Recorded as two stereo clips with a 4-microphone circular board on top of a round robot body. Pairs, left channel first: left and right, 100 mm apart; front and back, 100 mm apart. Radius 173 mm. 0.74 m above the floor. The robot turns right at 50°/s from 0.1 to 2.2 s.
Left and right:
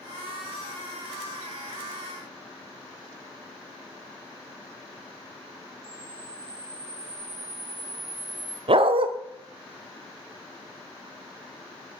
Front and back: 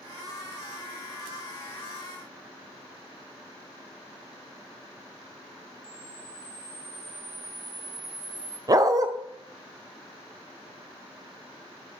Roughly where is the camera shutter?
Behind right.